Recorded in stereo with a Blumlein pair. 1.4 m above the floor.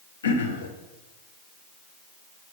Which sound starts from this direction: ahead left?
Throat clearing, at 0.2 s.